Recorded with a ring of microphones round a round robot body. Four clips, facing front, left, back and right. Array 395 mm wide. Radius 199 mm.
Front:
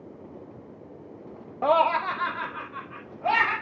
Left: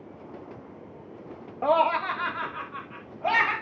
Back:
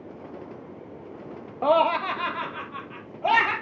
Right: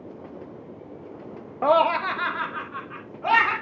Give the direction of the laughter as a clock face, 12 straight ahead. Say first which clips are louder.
Right 3 dB, back 1 dB; 4 o'clock.